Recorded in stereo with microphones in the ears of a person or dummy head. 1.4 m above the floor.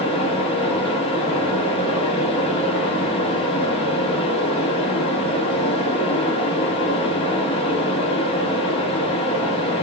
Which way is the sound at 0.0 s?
30° left (ahead or behind).